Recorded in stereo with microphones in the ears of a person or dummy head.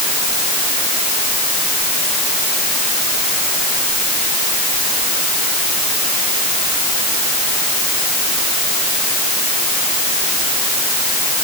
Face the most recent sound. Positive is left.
No sound to turn to.